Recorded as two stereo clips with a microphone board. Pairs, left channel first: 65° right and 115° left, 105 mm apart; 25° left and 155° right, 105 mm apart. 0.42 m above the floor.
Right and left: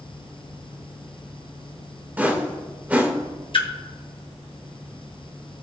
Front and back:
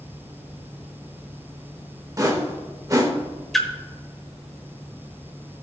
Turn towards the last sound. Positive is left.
turn(degrees=-65)